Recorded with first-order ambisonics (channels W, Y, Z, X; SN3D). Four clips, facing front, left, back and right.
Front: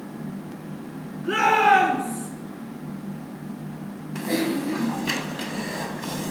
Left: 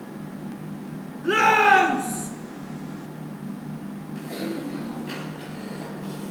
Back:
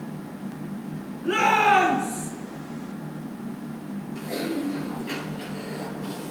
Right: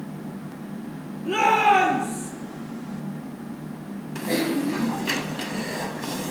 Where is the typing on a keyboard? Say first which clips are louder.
Right 7 dB, front 5 dB; 45° right, 1.3 m.